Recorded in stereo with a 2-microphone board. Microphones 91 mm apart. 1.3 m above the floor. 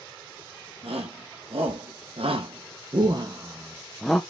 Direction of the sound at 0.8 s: 85° right.